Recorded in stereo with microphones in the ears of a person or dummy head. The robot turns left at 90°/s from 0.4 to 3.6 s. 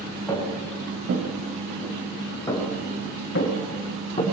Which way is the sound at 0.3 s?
20° left (ahead or behind).